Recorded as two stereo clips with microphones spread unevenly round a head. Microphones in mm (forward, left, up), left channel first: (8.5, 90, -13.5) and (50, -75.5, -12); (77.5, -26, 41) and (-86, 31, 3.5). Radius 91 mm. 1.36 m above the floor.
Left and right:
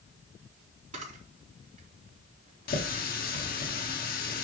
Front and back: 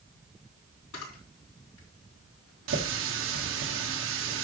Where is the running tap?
145° left, 1.7 m.